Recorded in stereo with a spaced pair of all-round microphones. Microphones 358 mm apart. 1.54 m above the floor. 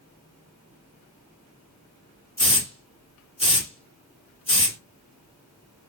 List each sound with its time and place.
2.4 s a hiss: 15° left (ahead or behind), 1.5 m